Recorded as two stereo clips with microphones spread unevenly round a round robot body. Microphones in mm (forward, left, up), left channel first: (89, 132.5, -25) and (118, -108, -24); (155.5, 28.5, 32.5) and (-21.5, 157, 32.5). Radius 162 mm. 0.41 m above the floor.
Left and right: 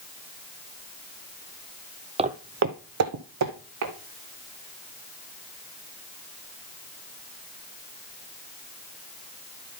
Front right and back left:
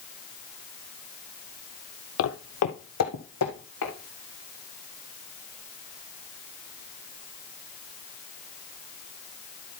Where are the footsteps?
15° right, 0.8 m; by 3.9 s 80° right, 2.0 m.